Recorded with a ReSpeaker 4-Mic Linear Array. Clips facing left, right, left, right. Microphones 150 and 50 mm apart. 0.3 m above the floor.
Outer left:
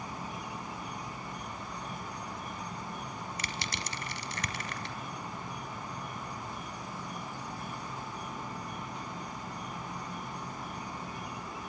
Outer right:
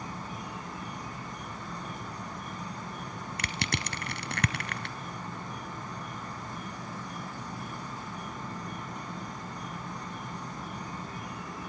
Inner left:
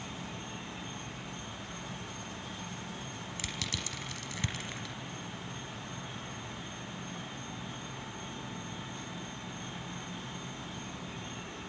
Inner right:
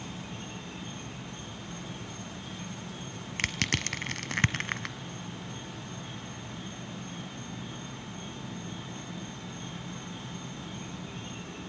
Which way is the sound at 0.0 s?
45° right (ahead or behind).